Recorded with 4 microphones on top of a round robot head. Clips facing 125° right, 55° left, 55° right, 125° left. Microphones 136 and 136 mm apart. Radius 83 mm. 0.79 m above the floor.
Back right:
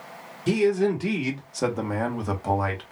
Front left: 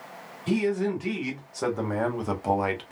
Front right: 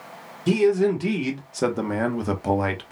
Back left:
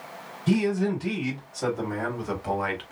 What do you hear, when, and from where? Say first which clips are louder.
0.5 s a man speaking: back right 4 dB, front right 5 dB; 80° right, 1.6 m; by 2.9 s straight ahead, 1.0 m